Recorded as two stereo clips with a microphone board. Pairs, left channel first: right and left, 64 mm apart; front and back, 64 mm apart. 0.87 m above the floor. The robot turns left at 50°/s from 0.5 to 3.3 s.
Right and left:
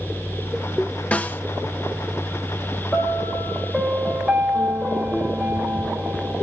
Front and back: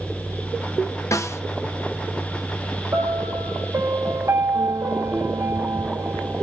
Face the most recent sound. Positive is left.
turn(degrees=-175)